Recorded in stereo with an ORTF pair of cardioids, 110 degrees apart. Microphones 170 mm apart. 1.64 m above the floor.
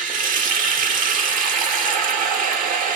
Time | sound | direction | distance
0.0 | running water | 55° right | 0.9 m